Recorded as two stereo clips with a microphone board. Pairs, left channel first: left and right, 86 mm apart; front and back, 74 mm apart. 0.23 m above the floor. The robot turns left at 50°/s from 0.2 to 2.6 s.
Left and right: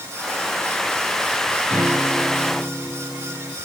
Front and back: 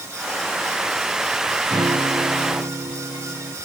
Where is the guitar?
150° right; by 3.6 s 165° left.